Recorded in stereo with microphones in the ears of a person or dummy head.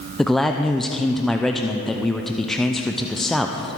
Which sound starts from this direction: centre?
A man speaking, at 0.2 s.